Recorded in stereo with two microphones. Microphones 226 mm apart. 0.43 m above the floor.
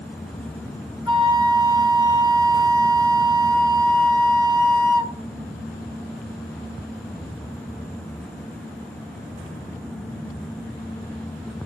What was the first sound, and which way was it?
A flute, 20° right (ahead or behind).